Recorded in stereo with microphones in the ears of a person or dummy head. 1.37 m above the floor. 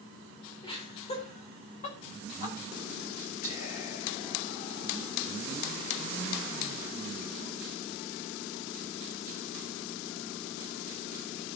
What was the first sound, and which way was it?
Laughter, 40° left (ahead or behind).